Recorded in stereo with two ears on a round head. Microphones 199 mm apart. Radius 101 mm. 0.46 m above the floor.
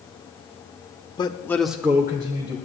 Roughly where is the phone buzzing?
I don't hear a phone buzzing.